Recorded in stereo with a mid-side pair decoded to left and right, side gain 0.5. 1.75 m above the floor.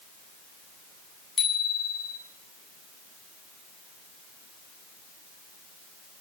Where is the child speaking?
I don't hear a child speaking.